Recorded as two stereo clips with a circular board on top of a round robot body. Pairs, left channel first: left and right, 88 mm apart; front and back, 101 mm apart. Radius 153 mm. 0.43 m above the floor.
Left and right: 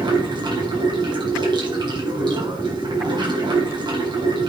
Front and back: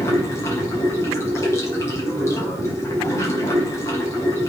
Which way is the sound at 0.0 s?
60° right.